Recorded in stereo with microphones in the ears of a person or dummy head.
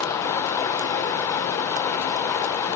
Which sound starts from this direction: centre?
Running water, at 0.0 s.